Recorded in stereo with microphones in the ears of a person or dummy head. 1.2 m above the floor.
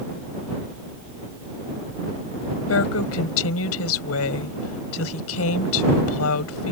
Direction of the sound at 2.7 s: 85° left.